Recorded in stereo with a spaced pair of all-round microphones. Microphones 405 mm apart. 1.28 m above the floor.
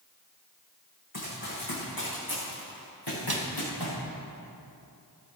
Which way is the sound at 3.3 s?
65° right (ahead or behind).